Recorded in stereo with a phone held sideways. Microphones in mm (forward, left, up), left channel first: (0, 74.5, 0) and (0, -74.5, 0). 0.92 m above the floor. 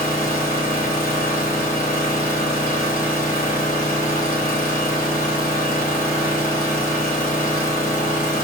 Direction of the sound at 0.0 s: 75° left (ahead or behind).